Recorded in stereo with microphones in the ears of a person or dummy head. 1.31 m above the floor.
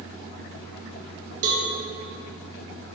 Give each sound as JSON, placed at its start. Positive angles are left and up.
{"t": 1.4, "sound": "a cowbell", "side_deg": -50, "distance_m": 0.6}